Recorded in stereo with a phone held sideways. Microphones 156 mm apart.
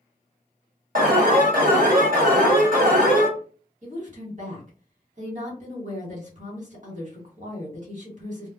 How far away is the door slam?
I don't hear a door slam.